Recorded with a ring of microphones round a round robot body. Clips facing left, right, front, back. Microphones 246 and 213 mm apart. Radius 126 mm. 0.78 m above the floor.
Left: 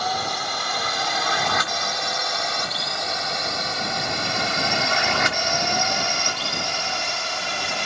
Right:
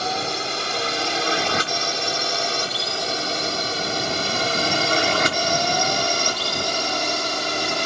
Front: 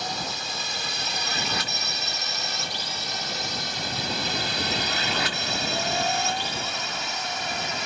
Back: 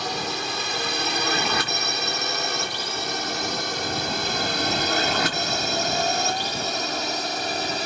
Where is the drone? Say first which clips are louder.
Right 2 dB, back 5 dB; 150° right; by 7.9 s 125° right.